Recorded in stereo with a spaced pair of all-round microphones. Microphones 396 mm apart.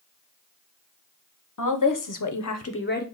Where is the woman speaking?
50° left (ahead or behind), 0.7 m; by 3.0 s 25° left (ahead or behind), 0.6 m.